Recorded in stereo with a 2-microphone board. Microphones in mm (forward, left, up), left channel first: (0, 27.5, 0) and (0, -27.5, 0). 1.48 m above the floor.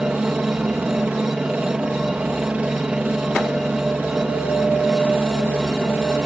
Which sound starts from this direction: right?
A helicopter, at 0.0 s.